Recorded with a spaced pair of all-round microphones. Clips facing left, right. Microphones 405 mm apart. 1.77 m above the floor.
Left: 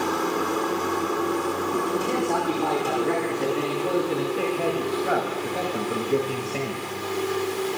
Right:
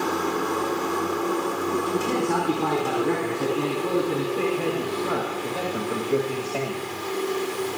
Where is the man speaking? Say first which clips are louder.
Right 1 dB; 25° right (ahead or behind), 5 m; by 6.8 s 15° left (ahead or behind), 2.5 m.